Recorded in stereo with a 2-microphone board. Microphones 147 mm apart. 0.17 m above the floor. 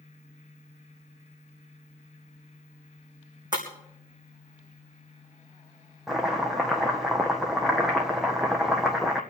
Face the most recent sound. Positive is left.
turn(degrees=-5)  # may be behind; listen again after turning